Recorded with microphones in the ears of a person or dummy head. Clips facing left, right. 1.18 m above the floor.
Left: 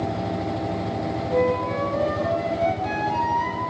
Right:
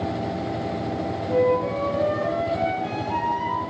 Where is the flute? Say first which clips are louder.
Right 2 dB; 45° right (ahead or behind), 5 m.